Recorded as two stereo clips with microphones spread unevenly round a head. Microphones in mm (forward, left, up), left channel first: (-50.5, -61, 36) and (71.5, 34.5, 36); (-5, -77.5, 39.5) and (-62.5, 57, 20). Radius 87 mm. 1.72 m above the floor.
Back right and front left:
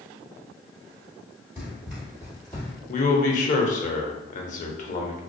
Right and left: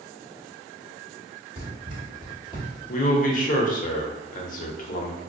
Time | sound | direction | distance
1.6 | running footsteps | 105° left | 1.8 m
2.9 | a man speaking | 100° right | 0.6 m